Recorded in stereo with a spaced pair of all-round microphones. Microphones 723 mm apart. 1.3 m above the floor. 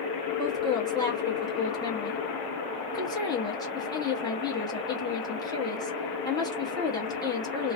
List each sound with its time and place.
0.4 s a woman speaking: 5° left (ahead or behind), 1.0 m